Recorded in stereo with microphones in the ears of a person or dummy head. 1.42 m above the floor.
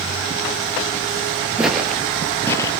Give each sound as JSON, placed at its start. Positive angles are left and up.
{"t": 1.6, "sound": "footsteps", "side_deg": -5, "distance_m": 1.5}